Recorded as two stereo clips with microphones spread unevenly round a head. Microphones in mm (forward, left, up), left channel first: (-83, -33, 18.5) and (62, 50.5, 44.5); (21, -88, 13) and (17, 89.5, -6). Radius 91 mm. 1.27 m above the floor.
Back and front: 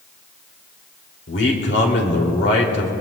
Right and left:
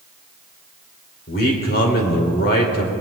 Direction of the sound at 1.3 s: 130° right.